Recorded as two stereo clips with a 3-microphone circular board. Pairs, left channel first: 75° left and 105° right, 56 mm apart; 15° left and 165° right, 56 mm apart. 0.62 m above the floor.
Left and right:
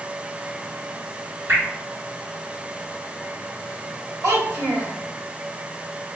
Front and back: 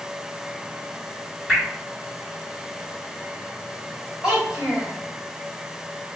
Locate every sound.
1.5 s dripping: 80° right, 1.8 m
4.2 s a child speaking: 90° right, 1.7 m